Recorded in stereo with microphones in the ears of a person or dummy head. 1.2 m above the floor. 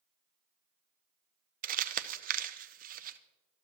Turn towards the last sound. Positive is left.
turn(degrees=-35)  # may be behind; listen again after turning